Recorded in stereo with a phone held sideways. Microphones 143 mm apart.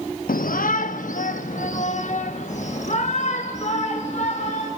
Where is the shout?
85° left, 0.7 m; by 4.7 s 55° left (ahead or behind), 3.5 m.